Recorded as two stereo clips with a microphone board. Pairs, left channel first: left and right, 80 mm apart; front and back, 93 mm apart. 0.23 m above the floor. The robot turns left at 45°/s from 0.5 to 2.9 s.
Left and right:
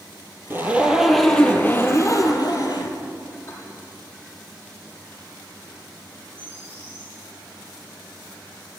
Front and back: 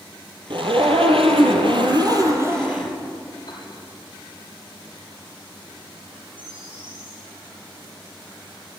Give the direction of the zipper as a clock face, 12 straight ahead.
5 o'clock.